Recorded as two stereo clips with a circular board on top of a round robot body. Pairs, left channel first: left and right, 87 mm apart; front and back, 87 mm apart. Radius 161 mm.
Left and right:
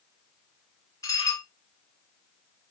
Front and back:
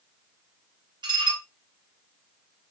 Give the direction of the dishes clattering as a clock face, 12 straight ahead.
7 o'clock.